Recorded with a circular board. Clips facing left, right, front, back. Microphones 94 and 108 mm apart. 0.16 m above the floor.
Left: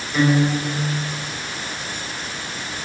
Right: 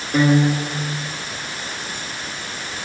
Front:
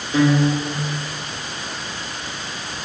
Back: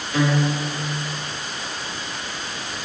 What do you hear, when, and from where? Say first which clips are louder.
0.1 s a guitar: right 2 dB, front 4 dB; 65° right, 0.8 m